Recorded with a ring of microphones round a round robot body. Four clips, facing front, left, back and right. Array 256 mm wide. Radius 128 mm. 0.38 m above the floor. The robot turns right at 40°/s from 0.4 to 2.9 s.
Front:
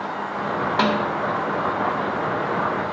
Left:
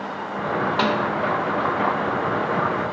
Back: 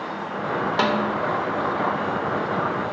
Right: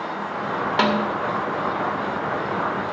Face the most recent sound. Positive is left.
turn(degrees=-25)